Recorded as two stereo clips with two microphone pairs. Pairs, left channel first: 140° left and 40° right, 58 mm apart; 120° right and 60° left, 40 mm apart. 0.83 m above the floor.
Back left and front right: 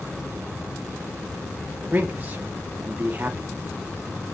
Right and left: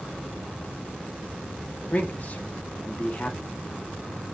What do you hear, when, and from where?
1.9 s a man speaking: 90° right, 1.2 m